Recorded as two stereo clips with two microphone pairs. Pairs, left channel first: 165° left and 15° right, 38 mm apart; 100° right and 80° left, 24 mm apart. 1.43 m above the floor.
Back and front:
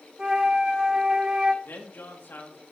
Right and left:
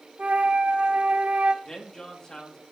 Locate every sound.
0.2 s a flute: 55° left, 1.1 m
1.6 s a man speaking: 160° right, 2 m